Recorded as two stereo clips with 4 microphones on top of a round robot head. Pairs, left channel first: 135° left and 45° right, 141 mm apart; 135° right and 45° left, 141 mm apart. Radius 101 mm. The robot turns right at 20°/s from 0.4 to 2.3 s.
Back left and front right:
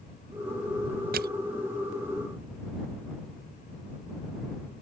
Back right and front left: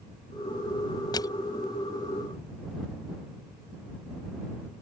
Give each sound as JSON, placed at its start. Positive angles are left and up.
{"t": 1.1, "sound": "crushing", "azimuth_deg": -70}